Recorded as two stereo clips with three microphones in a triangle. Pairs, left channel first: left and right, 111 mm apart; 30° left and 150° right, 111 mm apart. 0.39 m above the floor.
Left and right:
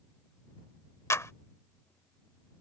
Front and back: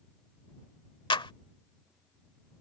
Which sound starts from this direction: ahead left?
A clap, at 1.1 s.